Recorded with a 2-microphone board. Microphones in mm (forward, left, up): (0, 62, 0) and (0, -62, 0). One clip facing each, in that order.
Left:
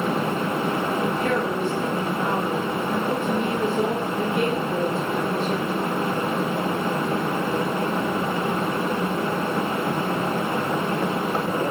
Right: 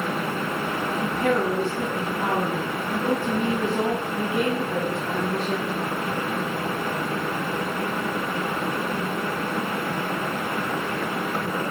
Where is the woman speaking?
75° right (ahead or behind), 4 m.